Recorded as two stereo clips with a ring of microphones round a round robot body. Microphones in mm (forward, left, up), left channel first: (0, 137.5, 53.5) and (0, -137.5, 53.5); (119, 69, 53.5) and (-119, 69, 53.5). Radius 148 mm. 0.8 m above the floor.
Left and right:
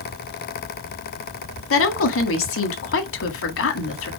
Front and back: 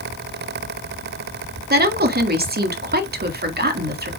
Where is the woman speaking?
130° left, 1.7 m.